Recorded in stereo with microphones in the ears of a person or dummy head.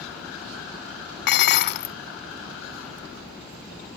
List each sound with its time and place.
1.3 s dishes clattering: 50° left (ahead or behind), 0.5 m